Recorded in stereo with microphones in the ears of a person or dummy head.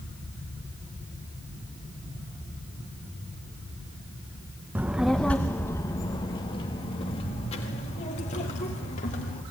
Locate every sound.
4.8 s a child speaking: 10° right (ahead or behind), 0.7 m; by 9.4 s 40° left (ahead or behind), 2.5 m